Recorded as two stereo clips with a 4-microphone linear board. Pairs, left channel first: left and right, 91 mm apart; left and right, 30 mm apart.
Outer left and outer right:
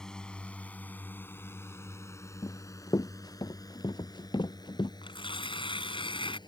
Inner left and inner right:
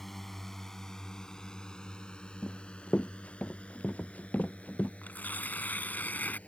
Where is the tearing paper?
75° left (ahead or behind).